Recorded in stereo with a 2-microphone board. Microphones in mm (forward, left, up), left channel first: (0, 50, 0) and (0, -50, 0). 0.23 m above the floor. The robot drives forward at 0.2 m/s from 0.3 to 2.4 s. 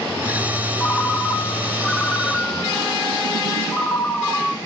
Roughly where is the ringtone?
Centre.